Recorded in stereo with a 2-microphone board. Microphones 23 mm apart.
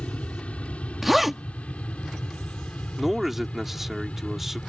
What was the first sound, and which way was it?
An aircraft, 65° left (ahead or behind).